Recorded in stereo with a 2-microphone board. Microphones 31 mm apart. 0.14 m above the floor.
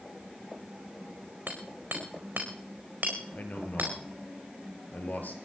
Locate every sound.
1.5 s hammering: 75° right (ahead or behind), 4 m
3.3 s a man speaking: 65° left (ahead or behind), 3.5 m